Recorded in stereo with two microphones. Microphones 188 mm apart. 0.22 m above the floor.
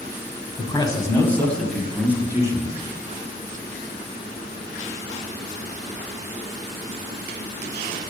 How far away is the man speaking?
About 1.9 m.